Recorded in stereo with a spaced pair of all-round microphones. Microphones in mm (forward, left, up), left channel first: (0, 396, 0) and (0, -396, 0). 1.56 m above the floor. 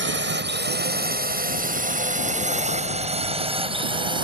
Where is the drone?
15° right (ahead or behind); by 4.2 s 5° right (ahead or behind).